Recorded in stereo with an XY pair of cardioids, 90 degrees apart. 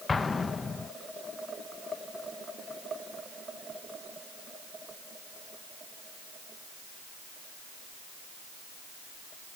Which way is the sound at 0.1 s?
35° left.